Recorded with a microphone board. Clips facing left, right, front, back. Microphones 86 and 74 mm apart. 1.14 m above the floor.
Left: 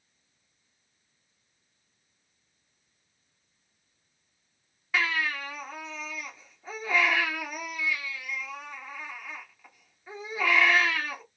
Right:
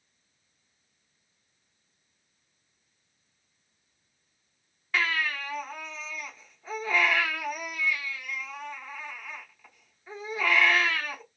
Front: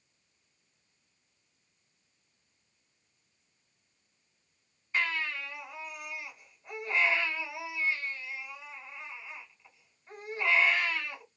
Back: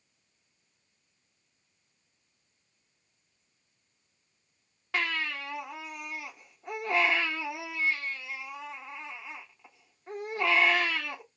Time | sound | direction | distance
4.9 | a baby crying | 175° left | 1.6 m